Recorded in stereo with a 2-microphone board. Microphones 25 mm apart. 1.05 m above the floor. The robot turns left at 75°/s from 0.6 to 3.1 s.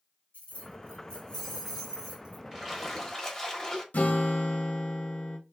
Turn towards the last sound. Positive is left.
turn(degrees=70)  # may be behind; listen again after turning